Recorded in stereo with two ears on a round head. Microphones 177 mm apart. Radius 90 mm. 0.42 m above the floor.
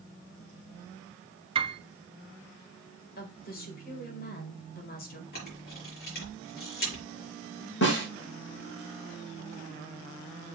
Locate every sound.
1.6 s a piano: 30° right (ahead or behind), 0.9 m
3.2 s a woman speaking: 50° left (ahead or behind), 1.9 m
5.3 s a camera shutter: 50° left (ahead or behind), 5 m
7.8 s a snare drum: 65° left (ahead or behind), 3.5 m